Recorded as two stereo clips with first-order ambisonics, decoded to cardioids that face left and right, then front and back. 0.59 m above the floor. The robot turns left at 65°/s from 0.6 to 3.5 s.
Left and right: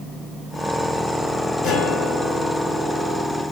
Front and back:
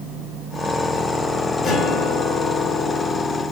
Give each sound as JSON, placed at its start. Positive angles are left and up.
{"t": 1.6, "sound": "a guitar", "azimuth_deg": 55, "distance_m": 1.5}